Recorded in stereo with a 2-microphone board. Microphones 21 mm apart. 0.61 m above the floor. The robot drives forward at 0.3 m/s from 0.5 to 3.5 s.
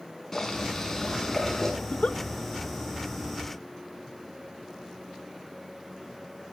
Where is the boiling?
15° left (ahead or behind), 6 m; by 1.7 s 10° left (ahead or behind), 6 m.